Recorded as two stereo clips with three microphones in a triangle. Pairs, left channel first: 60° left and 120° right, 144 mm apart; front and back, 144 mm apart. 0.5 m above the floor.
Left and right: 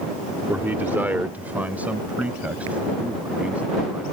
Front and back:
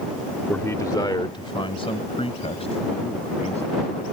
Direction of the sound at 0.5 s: 60° right.